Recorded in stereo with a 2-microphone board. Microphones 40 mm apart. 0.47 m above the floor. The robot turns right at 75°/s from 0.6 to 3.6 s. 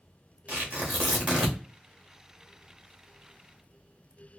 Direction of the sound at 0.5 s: 40° right (ahead or behind).